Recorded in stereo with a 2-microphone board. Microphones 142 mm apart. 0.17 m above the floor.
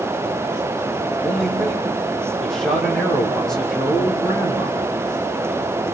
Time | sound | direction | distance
1.2 | a man speaking | 5° left (ahead or behind) | 6 m